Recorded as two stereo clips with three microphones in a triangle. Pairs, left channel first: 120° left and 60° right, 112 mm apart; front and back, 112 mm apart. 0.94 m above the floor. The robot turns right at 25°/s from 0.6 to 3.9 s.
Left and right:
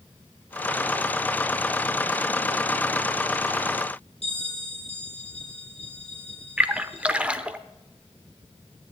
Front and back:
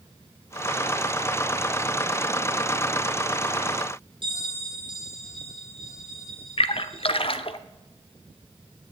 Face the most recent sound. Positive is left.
turn(degrees=15)